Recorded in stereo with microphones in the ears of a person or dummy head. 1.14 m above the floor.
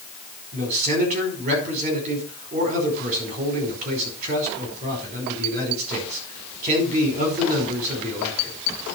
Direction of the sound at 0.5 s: 45° right (ahead or behind).